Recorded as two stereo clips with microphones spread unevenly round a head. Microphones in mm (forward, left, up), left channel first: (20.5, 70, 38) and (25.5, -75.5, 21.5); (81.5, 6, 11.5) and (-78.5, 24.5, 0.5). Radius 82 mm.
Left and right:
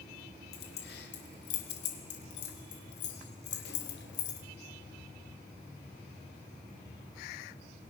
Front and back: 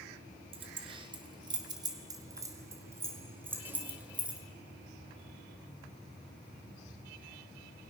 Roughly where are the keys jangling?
Behind left.